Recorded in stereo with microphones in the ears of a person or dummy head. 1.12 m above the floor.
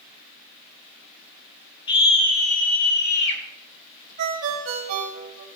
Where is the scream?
25° left (ahead or behind), 2.5 m; by 3.4 s 65° left (ahead or behind), 3 m.